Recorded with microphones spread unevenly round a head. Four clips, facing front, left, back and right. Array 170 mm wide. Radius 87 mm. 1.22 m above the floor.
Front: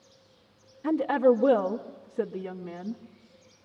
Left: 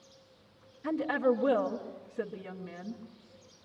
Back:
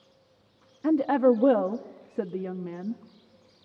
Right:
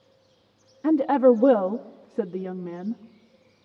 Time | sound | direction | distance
0.8 | a woman speaking | 120° right | 0.8 m